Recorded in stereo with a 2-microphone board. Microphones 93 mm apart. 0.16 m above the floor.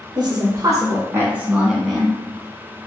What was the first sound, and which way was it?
A woman speaking, 50° right (ahead or behind).